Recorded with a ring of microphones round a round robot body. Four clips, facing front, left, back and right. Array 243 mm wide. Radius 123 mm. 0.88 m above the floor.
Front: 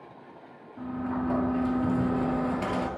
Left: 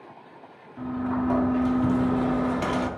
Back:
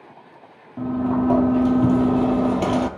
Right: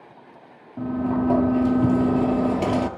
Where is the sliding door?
140° right, 1.9 m.